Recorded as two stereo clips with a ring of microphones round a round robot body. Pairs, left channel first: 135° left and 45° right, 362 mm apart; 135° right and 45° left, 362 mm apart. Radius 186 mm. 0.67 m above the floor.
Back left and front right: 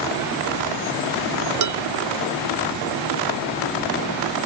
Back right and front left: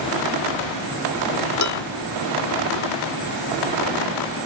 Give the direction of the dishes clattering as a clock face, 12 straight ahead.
3 o'clock.